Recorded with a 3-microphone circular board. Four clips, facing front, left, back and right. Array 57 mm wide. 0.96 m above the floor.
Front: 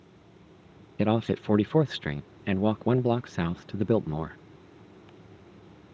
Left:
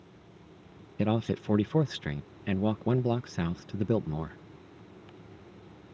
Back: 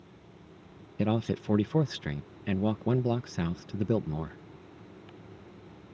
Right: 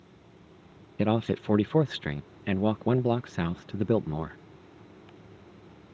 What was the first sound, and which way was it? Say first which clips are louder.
A man speaking: right 3 dB, front 4 dB; 35° right.